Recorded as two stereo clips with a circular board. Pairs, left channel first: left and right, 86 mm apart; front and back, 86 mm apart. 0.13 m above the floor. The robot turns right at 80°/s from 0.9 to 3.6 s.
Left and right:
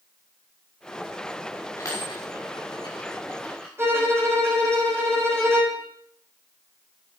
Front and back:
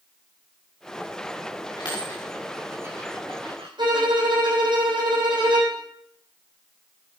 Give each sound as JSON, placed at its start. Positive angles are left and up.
{"t": 1.8, "sound": "a dropped coin", "azimuth_deg": 30, "distance_m": 6.0}
{"t": 3.8, "sound": "a violin", "azimuth_deg": -150, "distance_m": 6.5}